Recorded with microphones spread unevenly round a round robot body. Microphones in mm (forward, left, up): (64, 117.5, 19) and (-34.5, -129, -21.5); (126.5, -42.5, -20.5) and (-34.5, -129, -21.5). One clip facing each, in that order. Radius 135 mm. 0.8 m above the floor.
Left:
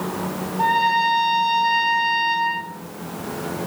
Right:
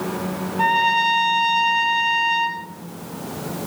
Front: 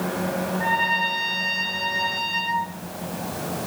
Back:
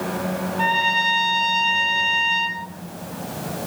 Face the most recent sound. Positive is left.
turn(degrees=-165)